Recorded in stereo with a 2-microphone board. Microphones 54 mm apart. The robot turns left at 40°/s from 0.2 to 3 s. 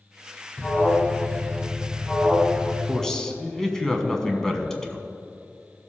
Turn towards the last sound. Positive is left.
turn(degrees=10)  # may be behind; listen again after turning